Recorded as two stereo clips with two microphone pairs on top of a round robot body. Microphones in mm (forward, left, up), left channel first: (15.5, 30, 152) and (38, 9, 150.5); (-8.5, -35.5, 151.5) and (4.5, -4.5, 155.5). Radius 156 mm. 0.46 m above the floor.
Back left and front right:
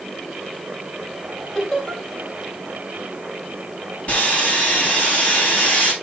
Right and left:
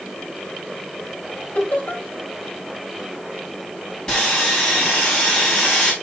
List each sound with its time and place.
1.6 s laughter: 150° right, 4 m
4.1 s sawing: straight behind, 5 m